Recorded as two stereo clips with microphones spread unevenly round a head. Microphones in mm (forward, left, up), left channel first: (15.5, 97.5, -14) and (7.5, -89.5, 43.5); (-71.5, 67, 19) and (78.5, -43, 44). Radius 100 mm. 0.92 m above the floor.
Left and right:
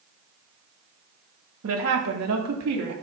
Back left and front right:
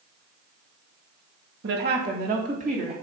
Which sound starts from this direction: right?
A woman speaking, at 1.6 s.